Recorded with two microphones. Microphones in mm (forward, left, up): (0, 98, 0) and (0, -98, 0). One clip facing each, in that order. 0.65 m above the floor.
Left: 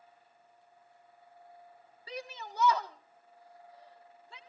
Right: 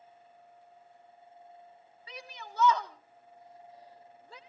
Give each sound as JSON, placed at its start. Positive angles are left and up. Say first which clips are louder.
{"t": 2.1, "sound": "a shout", "louder": "left 5 dB", "side_deg": 35, "distance_m": 1.5}